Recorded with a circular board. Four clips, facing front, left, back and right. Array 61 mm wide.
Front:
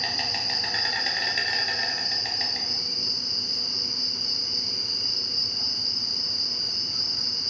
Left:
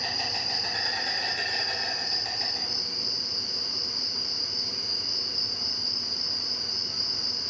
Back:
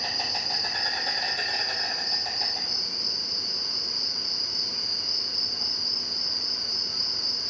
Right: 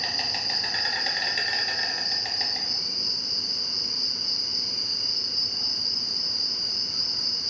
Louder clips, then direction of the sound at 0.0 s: Right 1 dB, front 1 dB; 45° right.